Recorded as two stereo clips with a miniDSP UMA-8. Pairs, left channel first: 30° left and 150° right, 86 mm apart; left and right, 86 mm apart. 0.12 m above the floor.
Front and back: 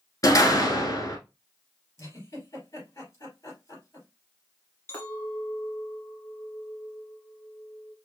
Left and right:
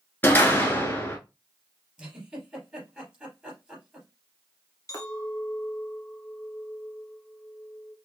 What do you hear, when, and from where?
0.2 s a door slam: 35° left, 1.2 m
2.0 s a giggle: 15° right, 3 m
4.9 s a clink: 75° left, 1.4 m